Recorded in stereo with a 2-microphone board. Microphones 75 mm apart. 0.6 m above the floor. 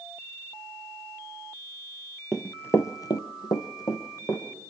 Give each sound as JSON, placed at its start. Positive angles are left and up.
{"t": 2.3, "sound": "running footsteps", "side_deg": 0, "distance_m": 0.8}